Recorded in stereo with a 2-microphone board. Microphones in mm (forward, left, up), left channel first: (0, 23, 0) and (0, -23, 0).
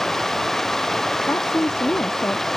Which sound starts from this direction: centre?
Running water, at 0.0 s.